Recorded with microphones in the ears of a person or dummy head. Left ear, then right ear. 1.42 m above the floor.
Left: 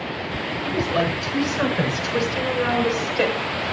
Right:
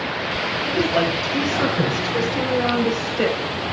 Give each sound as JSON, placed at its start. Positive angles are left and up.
{"t": 0.6, "sound": "a woman speaking", "side_deg": 35, "distance_m": 8.5}